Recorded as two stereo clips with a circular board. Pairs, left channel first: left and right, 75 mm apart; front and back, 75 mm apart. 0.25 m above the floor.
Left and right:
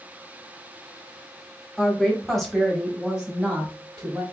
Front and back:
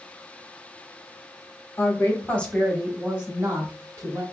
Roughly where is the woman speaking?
Ahead.